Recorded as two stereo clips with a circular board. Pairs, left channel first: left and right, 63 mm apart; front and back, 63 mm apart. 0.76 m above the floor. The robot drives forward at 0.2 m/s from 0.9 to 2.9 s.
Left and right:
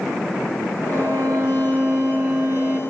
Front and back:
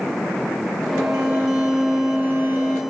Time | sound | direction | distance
0.9 | a violin | 120° right | 1.8 m